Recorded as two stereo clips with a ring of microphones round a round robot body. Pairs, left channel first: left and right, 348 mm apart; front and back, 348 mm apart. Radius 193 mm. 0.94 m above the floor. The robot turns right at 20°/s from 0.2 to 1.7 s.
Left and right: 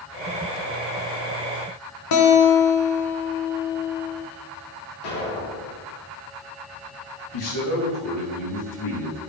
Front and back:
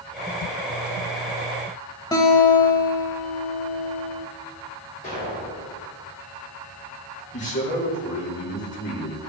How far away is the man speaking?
About 2.5 m.